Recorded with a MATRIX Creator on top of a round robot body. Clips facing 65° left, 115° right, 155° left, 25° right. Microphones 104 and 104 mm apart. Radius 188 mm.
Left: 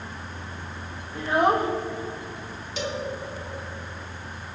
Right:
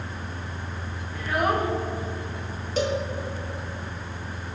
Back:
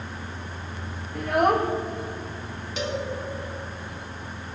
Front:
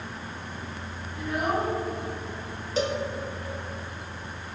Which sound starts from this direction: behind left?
A child speaking, at 1.1 s.